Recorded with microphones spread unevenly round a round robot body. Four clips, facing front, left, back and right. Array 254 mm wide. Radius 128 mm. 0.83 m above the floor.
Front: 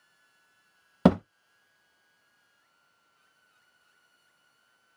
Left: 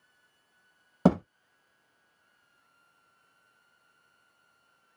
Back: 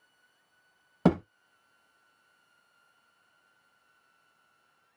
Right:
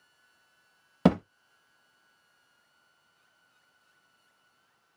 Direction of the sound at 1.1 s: Straight ahead.